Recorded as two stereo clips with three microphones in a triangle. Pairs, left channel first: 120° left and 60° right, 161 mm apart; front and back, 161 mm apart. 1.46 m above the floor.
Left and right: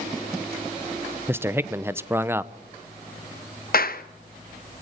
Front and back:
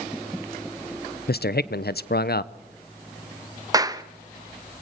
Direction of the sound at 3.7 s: 115° left.